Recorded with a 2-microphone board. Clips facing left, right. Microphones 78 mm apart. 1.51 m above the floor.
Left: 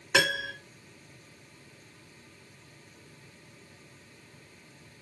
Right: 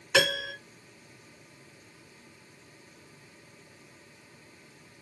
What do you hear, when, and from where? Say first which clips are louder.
0.1 s a piano: right 1 dB; 20° left (ahead or behind), 1.6 m